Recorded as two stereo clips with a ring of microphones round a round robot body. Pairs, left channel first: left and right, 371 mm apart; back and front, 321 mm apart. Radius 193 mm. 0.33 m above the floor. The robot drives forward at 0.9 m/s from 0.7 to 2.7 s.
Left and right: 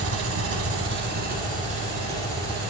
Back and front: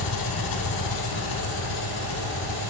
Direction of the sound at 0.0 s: 145° right.